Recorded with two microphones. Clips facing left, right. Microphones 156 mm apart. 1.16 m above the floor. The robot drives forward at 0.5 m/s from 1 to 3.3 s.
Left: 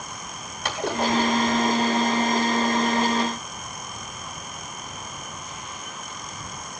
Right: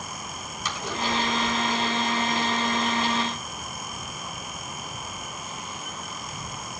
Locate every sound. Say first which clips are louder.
0.7 s a splash: left 6 dB; 65° left (ahead or behind), 4 m; by 2.3 s 55° left (ahead or behind), 4.5 m